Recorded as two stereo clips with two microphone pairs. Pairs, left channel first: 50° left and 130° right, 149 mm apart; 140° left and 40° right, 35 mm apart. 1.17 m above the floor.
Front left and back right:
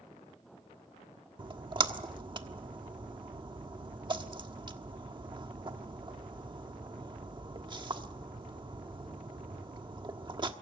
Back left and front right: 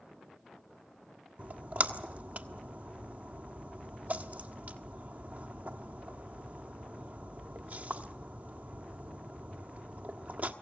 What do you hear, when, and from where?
1.4 s a splash: 75° right, 1.2 m